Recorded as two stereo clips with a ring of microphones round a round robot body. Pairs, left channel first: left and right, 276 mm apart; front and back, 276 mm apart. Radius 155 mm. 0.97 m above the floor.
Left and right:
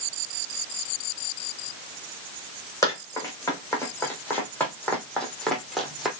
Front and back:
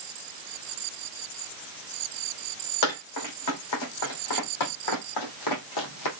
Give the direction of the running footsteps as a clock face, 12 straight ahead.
12 o'clock.